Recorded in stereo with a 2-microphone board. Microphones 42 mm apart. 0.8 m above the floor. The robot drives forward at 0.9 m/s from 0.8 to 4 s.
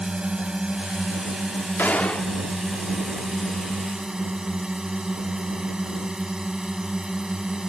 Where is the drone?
20° right (ahead or behind); by 7.7 s 15° right (ahead or behind).